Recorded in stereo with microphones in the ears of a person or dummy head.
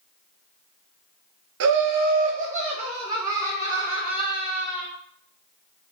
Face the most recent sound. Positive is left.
turn(degrees=30)  # may be behind; listen again after turning